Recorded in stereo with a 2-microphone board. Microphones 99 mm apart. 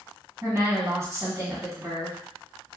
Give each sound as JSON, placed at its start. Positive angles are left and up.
{"t": 0.4, "sound": "a woman speaking", "side_deg": -30, "distance_m": 1.6}